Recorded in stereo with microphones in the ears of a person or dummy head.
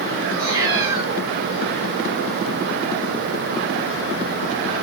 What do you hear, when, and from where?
0.3 s a cat meowing: 30° right (ahead or behind), 1.6 m